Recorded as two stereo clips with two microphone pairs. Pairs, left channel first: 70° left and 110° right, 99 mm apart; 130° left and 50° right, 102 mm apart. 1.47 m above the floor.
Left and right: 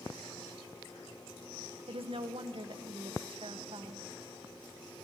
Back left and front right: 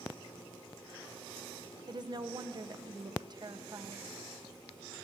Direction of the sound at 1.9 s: 90° right.